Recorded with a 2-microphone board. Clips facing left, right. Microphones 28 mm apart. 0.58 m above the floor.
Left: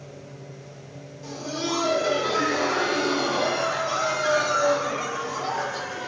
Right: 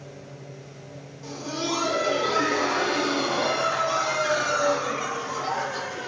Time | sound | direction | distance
1.2 | laughter | 5° right (ahead or behind) | 0.6 m